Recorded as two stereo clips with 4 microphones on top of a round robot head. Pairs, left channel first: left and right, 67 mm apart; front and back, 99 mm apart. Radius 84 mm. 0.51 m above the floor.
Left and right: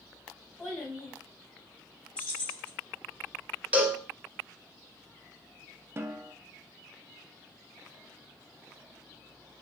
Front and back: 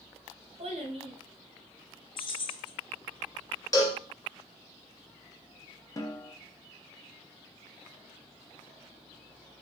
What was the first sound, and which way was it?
A child speaking, 170° left.